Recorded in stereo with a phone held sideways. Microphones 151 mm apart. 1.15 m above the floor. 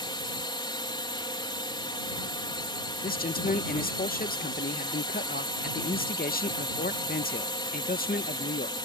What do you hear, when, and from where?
0.0 s a drone: 30° left (ahead or behind)
3.0 s a man speaking: 75° left (ahead or behind)